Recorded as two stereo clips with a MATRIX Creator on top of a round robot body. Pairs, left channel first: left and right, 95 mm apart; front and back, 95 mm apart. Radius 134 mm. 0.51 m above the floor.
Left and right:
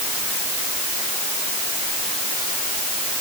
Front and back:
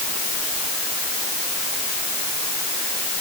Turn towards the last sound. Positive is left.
No sound to turn to.